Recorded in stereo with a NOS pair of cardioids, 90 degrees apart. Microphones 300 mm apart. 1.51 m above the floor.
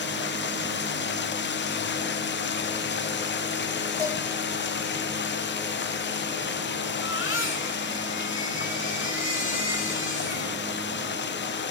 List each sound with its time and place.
0.0 s running water: 40° left, 0.9 m
4.0 s dishes clattering: 10° left, 3 m
6.9 s a baby crying: 40° left, 4.5 m